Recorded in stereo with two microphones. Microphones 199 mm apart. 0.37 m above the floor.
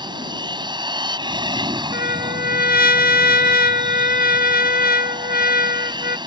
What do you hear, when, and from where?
0.0 s an aircraft: 20° right (ahead or behind)
1.9 s a trumpet: 50° left (ahead or behind)